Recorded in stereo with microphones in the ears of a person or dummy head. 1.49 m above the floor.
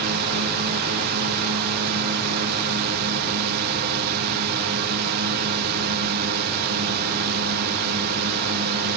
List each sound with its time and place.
0.0 s a drone: 60° right (ahead or behind)